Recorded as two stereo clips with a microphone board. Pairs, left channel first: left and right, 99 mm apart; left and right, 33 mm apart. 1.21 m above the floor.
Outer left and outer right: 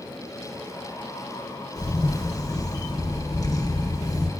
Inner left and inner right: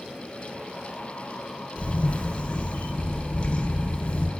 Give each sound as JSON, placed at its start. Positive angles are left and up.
{"t": 1.8, "sound": "a camera shutter", "side_deg": 40, "distance_m": 0.7}